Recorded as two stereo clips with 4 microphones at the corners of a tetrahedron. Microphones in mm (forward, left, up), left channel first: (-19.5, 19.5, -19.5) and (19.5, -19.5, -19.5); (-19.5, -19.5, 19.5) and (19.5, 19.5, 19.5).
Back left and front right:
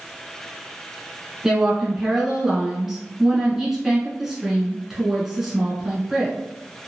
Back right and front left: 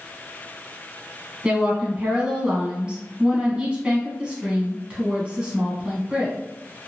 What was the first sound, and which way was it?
A woman speaking, 30° left.